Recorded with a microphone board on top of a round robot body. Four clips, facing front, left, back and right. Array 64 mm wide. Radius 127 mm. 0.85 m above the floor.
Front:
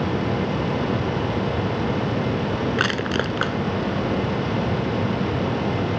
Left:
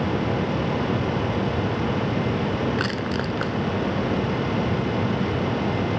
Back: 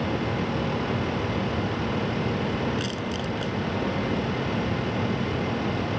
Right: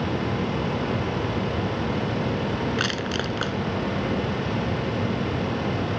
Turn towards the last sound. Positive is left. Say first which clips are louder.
# left 1 dB, front 7 dB
turn(degrees=5)